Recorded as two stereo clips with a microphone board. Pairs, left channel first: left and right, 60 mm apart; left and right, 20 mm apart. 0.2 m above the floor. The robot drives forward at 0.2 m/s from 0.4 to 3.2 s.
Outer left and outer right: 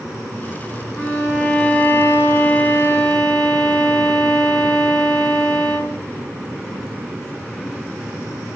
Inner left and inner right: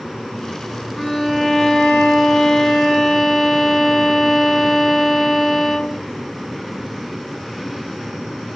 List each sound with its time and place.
1.0 s a violin: 30° left (ahead or behind), 3 m